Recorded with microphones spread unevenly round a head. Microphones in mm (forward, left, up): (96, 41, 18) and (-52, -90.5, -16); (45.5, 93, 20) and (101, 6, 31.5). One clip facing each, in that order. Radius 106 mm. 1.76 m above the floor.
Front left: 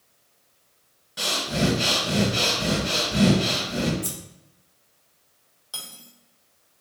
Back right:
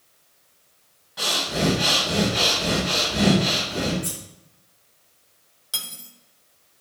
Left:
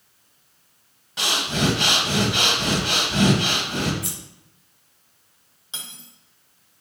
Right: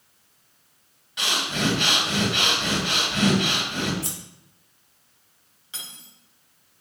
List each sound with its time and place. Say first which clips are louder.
1.2 s breathing: even, left 3 dB; 80° left, 2 m
4.0 s scissors: even, left 1 dB; 10° right, 3.5 m
5.7 s cutlery clinking: back right 2 dB, left 2 dB; 175° left, 1.0 m